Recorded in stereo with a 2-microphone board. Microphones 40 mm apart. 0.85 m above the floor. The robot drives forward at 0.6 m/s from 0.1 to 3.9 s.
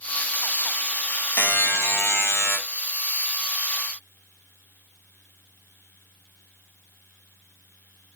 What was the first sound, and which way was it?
A buzzer, 65° left (ahead or behind).